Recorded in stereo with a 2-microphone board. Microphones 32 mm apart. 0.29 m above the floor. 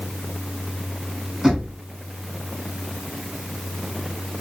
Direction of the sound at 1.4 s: 30° right (ahead or behind).